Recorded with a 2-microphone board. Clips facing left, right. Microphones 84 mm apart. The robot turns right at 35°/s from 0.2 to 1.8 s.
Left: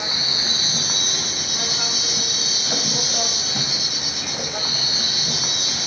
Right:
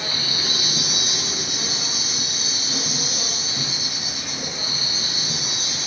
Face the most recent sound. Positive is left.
turn(degrees=75)